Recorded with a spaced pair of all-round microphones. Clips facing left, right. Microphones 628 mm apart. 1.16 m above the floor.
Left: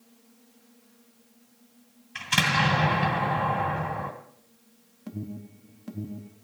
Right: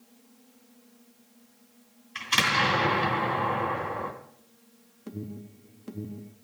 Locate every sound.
2.1 s an explosion: 70° left (ahead or behind), 2.5 m
5.1 s an alarm: 20° left (ahead or behind), 1.0 m